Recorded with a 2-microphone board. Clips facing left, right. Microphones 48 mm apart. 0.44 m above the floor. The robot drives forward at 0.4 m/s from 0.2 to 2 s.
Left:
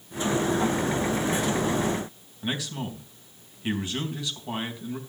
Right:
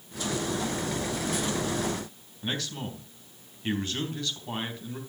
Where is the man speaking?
10° left (ahead or behind), 4 m.